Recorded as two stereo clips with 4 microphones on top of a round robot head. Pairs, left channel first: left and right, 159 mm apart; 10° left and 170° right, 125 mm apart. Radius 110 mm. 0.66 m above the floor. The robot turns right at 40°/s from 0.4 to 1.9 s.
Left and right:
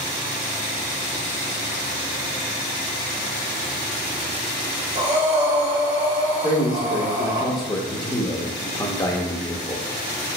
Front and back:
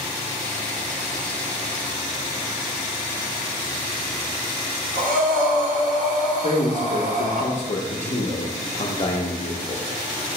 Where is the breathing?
155° right, 1.3 m.